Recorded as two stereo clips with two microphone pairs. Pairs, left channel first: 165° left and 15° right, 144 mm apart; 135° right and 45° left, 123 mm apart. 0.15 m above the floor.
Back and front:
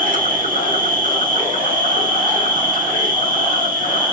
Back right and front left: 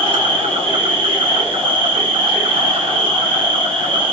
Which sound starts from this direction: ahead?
An insect, at 0.0 s.